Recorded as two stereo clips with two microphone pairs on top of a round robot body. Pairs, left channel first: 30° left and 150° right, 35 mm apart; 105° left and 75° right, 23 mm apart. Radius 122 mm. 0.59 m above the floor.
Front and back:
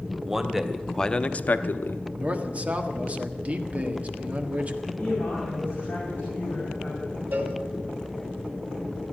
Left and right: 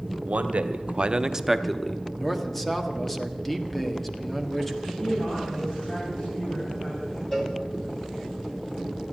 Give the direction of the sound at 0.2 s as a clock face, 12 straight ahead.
3 o'clock.